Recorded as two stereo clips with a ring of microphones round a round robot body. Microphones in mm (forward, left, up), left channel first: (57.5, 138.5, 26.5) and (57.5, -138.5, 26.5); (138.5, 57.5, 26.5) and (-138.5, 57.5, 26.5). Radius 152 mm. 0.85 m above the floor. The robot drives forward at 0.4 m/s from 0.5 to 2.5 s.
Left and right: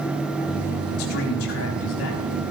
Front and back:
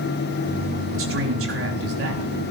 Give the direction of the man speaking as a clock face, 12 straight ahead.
7 o'clock.